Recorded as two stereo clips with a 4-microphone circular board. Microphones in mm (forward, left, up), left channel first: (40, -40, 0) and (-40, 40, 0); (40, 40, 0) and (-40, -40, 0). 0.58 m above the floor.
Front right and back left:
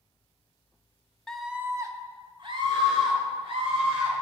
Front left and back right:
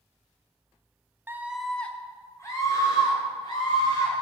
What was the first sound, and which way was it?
A scream, 120° right.